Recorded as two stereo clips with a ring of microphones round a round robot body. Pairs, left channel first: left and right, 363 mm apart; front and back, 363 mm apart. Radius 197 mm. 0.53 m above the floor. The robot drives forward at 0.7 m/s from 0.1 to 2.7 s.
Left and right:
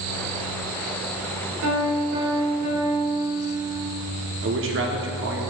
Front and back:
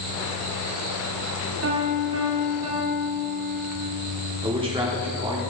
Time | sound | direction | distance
1.6 | a piano | 130° right | 1.6 m
4.4 | a man speaking | 115° right | 1.1 m